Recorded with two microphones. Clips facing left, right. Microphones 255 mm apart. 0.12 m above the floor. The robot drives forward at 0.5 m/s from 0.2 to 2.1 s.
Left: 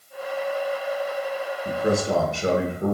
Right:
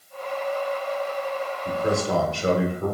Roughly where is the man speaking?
Centre.